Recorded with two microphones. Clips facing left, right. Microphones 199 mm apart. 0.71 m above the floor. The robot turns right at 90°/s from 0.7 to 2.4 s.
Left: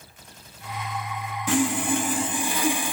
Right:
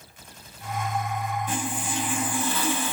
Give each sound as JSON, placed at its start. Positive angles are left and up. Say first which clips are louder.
{"t": 1.5, "sound": "sawing", "louder": "left 8 dB", "azimuth_deg": 80, "distance_m": 0.5}